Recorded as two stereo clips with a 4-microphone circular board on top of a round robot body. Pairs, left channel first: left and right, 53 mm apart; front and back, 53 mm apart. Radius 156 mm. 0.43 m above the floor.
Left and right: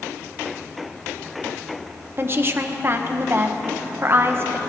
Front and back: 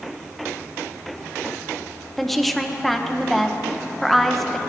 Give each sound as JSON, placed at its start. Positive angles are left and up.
{"t": 2.2, "sound": "a woman speaking", "azimuth_deg": -85, "distance_m": 1.2}